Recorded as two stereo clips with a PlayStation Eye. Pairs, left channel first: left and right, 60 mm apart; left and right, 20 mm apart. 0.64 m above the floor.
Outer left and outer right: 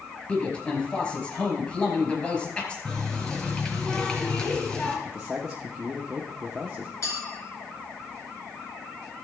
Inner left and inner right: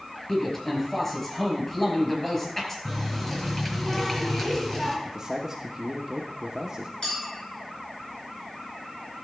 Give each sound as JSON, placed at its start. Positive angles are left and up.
{"t": 0.3, "sound": "a man speaking", "side_deg": 20, "distance_m": 4.0}
{"t": 2.9, "sound": "a running tap", "side_deg": 15, "distance_m": 3.0}
{"t": 5.0, "sound": "a man speaking", "side_deg": -10, "distance_m": 1.0}
{"t": 7.0, "sound": "a clink", "side_deg": 50, "distance_m": 4.5}